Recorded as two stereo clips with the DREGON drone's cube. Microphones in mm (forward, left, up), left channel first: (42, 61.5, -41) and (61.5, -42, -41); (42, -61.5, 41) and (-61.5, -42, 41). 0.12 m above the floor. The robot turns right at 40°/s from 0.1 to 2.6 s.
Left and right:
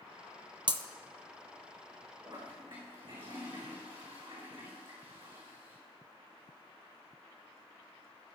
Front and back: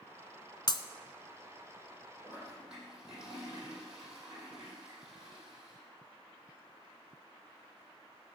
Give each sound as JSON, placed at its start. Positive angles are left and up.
{"t": 0.7, "sound": "breaking glass", "azimuth_deg": -50, "distance_m": 0.6}
{"t": 2.2, "sound": "a toilet flushing", "azimuth_deg": -125, "distance_m": 5.5}